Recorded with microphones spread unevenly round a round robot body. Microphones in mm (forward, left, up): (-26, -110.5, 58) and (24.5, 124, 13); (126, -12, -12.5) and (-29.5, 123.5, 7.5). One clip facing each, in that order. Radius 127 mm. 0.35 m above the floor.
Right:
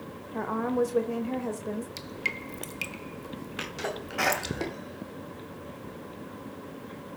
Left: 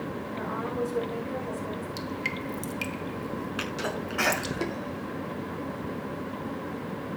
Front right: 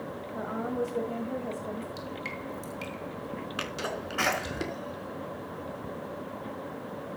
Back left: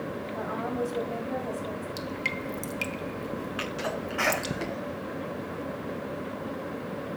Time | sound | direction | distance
0.3 | a woman speaking | 105° right | 1.6 m
2.0 | dripping | 160° left | 1.1 m
3.6 | a sneeze | 5° right | 4.5 m